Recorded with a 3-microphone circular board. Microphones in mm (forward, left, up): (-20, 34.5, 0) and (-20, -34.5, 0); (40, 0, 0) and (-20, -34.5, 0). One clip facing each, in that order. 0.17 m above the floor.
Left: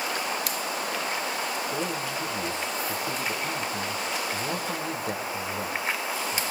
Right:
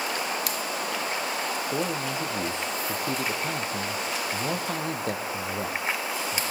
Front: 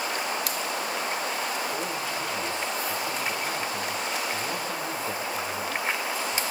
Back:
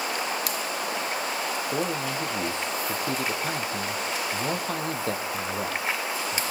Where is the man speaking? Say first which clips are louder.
Right 2 dB, back 3 dB; 115° right, 5 m.